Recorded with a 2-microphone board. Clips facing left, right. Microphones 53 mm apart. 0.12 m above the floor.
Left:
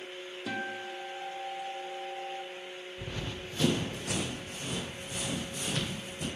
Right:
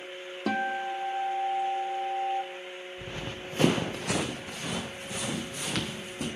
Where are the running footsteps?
5° right (ahead or behind), 1.0 m; by 6.3 s 65° right (ahead or behind), 3 m.